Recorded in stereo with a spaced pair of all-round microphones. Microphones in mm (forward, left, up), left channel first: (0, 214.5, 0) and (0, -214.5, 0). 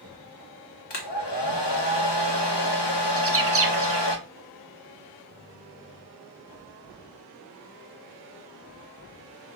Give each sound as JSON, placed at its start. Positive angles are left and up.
{"t": 0.9, "sound": "a hair dryer", "side_deg": 85, "distance_m": 0.7}
{"t": 3.2, "sound": "a bird", "side_deg": -35, "distance_m": 0.5}